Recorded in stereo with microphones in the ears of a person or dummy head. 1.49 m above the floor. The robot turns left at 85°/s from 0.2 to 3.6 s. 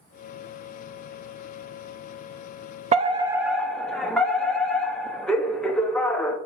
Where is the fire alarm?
125° right, 0.7 m; by 6.4 s 175° left, 0.7 m.